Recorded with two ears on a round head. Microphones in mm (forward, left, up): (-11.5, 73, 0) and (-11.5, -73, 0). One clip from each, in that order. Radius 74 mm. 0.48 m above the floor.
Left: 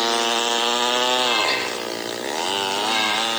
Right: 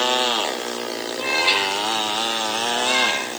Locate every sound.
1.2 s a cat meowing: 75° right (ahead or behind), 8 m